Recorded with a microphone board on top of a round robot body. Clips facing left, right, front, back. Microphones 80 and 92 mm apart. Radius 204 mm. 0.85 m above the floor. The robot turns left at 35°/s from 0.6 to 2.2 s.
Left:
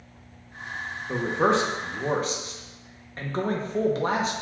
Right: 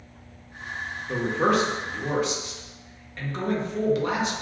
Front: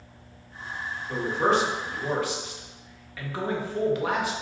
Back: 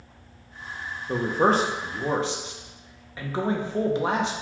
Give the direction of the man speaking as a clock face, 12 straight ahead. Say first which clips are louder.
Even, back 2 dB; 7 o'clock.